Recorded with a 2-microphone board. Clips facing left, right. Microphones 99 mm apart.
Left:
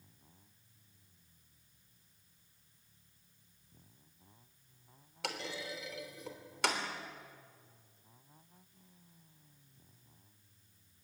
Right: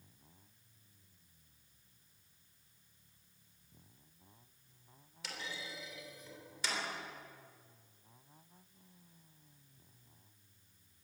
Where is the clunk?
75° left (ahead or behind), 3 m.